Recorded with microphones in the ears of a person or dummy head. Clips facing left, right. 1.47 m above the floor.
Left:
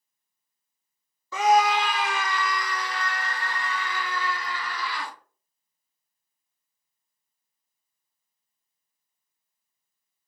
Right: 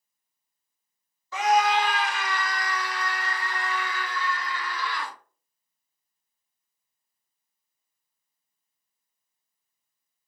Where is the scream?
75° left (ahead or behind), 0.7 m; by 5.1 s 80° left, 3 m.